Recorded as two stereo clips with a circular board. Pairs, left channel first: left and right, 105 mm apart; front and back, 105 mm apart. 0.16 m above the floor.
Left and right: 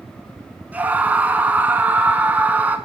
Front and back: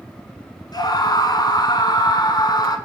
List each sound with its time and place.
0.7 s a scream: 20° right, 1.4 m